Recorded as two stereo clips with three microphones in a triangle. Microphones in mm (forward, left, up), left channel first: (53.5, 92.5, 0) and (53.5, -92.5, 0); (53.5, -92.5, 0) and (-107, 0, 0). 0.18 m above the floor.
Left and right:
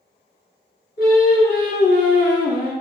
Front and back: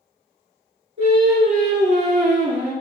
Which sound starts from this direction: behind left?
Singing, at 1.0 s.